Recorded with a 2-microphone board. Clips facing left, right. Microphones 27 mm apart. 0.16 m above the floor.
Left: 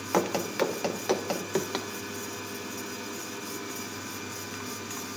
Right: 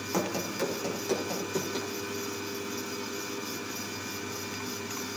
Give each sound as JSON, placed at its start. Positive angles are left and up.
{"t": 0.1, "sound": "running footsteps", "side_deg": 35, "distance_m": 1.4}